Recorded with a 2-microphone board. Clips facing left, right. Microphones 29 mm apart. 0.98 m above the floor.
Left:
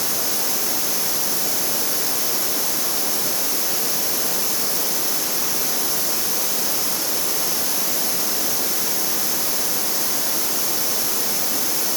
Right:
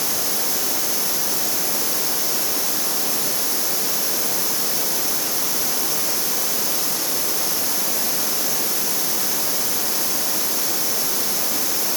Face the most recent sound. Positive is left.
No sound to turn to.